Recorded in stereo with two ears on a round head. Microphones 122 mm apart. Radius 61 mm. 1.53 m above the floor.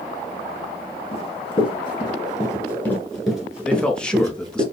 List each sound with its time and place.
1.1 s running footsteps: 50° left (ahead or behind), 2 m; by 4.7 s 35° right (ahead or behind), 1.8 m
3.6 s a man speaking: 5° left (ahead or behind), 0.9 m